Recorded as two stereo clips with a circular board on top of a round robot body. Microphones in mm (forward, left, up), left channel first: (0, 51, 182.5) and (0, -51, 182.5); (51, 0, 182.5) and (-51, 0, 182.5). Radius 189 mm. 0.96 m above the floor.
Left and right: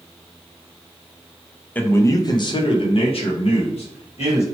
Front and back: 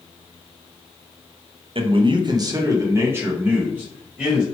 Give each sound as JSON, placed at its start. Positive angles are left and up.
{"t": 1.8, "sound": "a man speaking", "azimuth_deg": 160, "distance_m": 0.7}